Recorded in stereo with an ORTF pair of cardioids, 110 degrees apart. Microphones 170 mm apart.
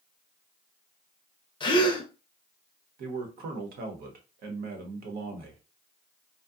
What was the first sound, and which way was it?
A gasp, 25° left.